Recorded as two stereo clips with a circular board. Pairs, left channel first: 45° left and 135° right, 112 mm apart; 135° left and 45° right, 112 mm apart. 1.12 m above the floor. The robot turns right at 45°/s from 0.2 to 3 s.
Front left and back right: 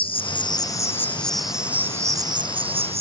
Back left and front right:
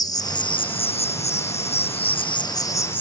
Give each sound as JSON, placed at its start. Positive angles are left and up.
{"t": 0.0, "sound": "an insect", "azimuth_deg": 80}